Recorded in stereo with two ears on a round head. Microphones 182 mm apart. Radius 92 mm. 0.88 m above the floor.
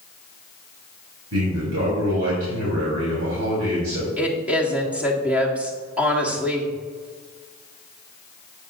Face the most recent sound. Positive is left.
turn(degrees=-5)  # may be behind; listen again after turning